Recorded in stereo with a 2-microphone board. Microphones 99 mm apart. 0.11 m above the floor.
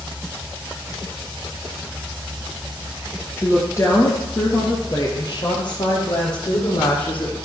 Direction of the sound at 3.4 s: 25° left (ahead or behind).